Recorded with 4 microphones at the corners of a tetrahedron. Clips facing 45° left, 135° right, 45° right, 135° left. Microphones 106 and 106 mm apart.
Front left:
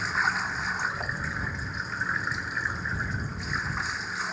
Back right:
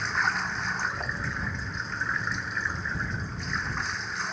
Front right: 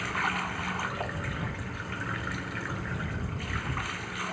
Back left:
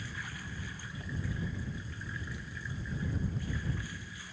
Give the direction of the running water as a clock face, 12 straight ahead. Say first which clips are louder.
Even, front right 13 dB; 1 o'clock.